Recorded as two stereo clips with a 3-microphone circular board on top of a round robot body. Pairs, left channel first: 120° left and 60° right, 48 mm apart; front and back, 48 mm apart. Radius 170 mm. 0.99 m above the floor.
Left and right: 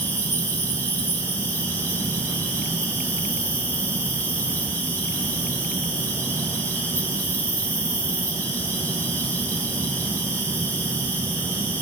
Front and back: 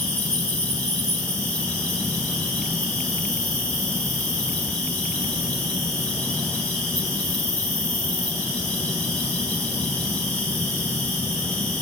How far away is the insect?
About 2.0 m.